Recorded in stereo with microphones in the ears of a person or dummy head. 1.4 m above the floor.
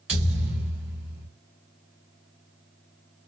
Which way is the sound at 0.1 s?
5° right (ahead or behind).